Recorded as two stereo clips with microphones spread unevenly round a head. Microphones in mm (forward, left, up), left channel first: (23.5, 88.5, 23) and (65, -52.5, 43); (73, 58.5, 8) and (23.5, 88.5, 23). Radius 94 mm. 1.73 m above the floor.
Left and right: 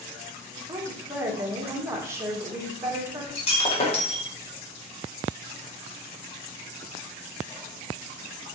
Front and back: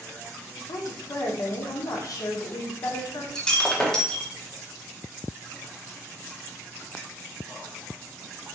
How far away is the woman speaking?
About 1.4 m.